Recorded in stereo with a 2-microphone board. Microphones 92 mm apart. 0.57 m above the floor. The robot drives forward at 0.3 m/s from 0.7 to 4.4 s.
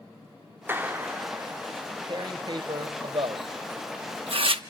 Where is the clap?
25° right (ahead or behind), 1.4 m; by 1.6 s 20° right (ahead or behind), 1.6 m.